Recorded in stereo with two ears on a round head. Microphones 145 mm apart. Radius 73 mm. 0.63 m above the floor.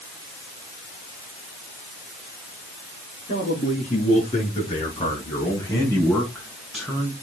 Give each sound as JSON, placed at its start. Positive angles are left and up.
{"t": 3.3, "sound": "a man speaking", "side_deg": 40, "distance_m": 6.5}